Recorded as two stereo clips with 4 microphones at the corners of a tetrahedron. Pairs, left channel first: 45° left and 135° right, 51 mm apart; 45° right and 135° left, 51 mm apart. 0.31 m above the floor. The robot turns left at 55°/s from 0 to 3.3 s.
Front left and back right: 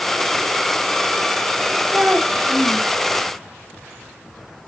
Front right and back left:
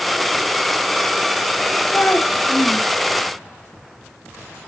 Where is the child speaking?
85° right, 0.8 m; by 2.9 s 135° right, 0.8 m.